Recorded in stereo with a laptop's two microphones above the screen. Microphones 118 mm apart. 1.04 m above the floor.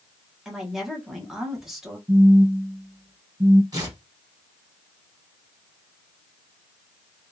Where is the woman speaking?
5° right (ahead or behind), 1.2 m.